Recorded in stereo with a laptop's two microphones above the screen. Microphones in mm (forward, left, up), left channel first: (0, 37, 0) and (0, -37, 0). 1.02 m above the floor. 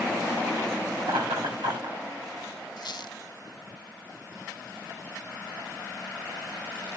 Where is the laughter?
80° right, 8 m.